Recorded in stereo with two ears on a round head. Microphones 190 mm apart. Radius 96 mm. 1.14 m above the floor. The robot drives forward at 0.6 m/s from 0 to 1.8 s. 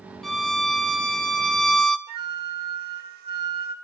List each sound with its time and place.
0.2 s a violin: centre (ahead or behind), 0.8 m
2.1 s a flute: 50° right (ahead or behind), 1.7 m